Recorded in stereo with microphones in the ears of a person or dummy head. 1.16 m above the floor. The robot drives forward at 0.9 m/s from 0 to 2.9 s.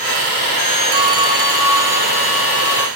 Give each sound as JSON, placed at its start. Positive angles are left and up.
{"t": 0.9, "sound": "a phone ringing", "side_deg": -25, "distance_m": 0.8}